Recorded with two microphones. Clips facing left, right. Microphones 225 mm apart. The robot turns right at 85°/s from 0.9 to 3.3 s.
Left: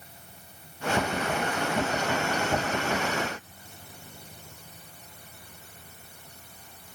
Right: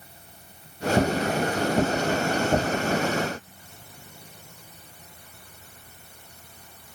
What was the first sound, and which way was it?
Only background noise.